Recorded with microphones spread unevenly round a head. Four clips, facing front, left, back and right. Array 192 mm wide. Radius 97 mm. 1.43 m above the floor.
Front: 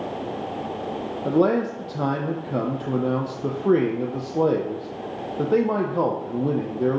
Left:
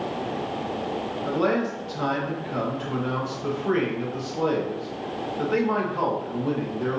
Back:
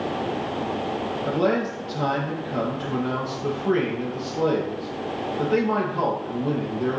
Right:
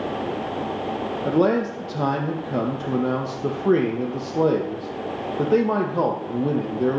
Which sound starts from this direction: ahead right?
A man speaking, at 1.2 s.